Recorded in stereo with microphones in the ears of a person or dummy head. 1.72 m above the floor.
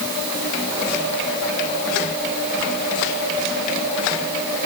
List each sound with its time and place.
Only background noise.